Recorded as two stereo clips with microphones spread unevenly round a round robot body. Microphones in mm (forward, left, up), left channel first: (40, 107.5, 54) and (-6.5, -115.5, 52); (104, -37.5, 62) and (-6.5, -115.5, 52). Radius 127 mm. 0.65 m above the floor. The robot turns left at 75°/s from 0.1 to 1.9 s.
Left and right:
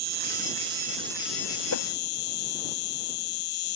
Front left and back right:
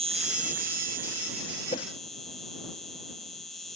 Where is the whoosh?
95° left; by 1.9 s 85° left.